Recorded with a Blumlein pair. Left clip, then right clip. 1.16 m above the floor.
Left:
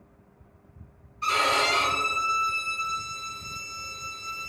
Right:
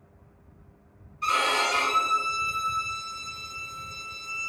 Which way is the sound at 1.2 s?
5° right.